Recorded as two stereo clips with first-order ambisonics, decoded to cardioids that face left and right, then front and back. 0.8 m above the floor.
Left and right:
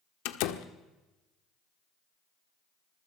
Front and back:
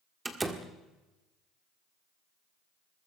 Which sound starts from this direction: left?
A door slam, at 0.2 s.